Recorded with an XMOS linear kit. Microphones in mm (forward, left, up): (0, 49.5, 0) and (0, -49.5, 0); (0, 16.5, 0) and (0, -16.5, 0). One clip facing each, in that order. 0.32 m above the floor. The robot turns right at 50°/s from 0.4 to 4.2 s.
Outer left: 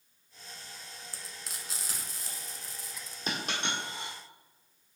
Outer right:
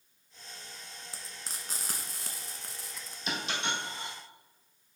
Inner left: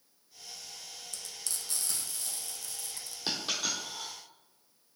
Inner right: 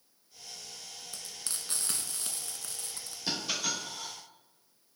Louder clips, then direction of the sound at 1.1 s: Outer right 1 dB, inner right 1 dB; 25° right (ahead or behind).